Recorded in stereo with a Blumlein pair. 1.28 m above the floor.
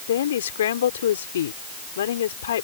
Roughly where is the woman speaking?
Ahead left.